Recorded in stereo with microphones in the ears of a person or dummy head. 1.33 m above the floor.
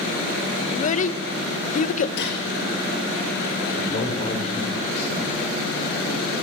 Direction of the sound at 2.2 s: 65° left (ahead or behind).